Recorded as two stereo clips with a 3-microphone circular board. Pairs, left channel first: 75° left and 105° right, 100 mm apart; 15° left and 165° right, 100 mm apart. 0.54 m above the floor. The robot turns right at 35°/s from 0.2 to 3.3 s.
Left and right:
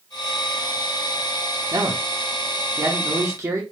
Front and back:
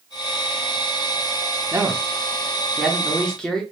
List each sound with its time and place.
1.7 s a man speaking: 115° right, 0.9 m; by 3.6 s 60° right, 0.9 m